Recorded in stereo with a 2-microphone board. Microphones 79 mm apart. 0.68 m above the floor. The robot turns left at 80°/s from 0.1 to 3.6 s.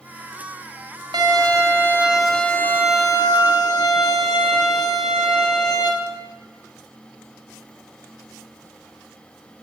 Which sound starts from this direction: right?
A violin, at 1.1 s.